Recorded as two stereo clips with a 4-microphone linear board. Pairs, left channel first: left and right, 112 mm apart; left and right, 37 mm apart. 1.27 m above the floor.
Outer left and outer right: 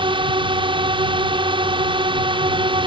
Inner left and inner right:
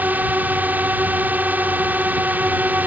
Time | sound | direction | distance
0.0 | a drone | 45° right (ahead or behind) | ?